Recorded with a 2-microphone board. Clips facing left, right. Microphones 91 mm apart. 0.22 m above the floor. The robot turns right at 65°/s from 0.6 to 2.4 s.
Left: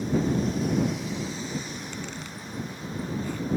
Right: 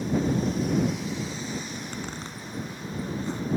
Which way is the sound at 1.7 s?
55° right (ahead or behind).